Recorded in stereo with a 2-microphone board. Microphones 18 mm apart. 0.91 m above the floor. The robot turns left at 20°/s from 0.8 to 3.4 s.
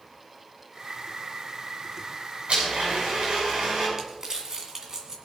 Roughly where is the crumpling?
Right.